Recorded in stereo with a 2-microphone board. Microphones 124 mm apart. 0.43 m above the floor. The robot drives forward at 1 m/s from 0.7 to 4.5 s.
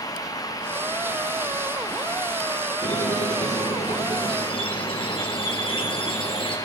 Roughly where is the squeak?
Left.